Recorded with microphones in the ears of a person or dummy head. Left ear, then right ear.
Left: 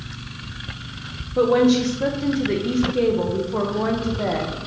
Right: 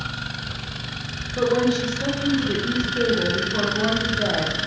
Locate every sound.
1.4 s a woman speaking: 70° left (ahead or behind), 1.0 m